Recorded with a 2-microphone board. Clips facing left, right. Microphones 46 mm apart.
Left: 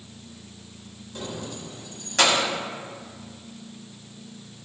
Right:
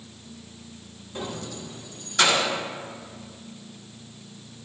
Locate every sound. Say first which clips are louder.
1.1 s keys jangling: right 1 dB; 20° right (ahead or behind), 0.6 m; by 2.5 s 70° left (ahead or behind), 1.7 m